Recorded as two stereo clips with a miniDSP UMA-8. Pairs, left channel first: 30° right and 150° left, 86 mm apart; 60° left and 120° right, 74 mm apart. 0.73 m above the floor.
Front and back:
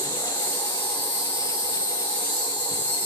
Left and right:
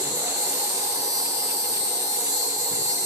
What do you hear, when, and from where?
0.0 s an insect: 5° right, 1.9 m